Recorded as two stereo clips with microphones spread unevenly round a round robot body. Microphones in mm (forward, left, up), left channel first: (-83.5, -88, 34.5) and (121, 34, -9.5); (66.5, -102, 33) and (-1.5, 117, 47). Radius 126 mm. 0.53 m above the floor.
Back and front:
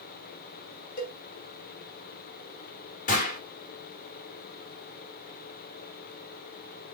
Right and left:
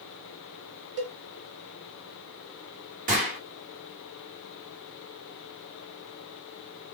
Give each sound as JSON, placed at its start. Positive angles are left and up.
{"t": 1.0, "sound": "a cowbell", "azimuth_deg": 155, "distance_m": 0.8}
{"t": 3.1, "sound": "a gunshot", "azimuth_deg": 150, "distance_m": 1.7}